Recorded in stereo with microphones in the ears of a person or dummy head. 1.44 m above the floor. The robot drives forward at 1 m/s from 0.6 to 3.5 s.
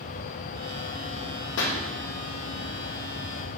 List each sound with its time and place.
1.6 s a pop: 65° left (ahead or behind), 1.2 m; by 1.8 s 60° left (ahead or behind), 1.3 m